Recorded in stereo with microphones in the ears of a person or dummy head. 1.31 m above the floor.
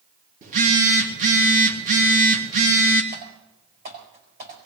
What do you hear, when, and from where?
0.4 s a phone buzzing: 45° right (ahead or behind), 2.5 m
3.1 s typing on a keyboard: 50° right (ahead or behind), 5 m